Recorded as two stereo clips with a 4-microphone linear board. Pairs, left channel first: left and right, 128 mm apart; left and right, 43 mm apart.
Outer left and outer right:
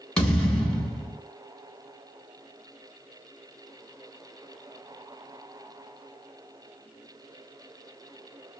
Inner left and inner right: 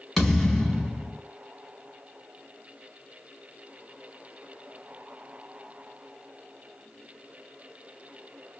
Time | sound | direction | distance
0.2 | a thud | 5° left (ahead or behind) | 0.9 m